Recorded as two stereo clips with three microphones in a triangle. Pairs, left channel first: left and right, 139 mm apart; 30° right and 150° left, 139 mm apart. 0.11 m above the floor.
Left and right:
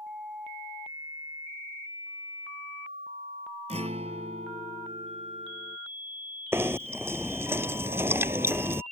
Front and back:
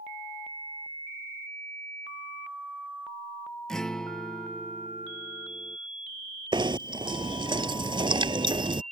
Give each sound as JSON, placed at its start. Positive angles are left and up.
{"t": 3.7, "sound": "a guitar", "azimuth_deg": -115}
{"t": 6.5, "sound": "knocking", "azimuth_deg": -160}